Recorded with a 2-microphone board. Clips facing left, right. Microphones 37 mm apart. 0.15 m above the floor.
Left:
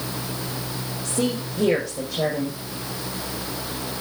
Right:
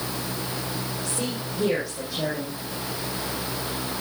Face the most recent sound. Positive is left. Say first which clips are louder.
# left 5 dB
turn(degrees=50)  # may be behind; listen again after turning